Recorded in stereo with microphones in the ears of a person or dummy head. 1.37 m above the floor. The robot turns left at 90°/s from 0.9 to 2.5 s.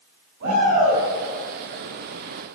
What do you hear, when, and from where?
0.4 s a shout: 65° right (ahead or behind), 9.5 m; by 1.0 s 55° right (ahead or behind), 9.5 m